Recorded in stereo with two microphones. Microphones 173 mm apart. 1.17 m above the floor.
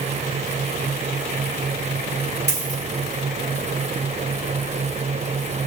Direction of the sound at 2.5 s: 70° left (ahead or behind).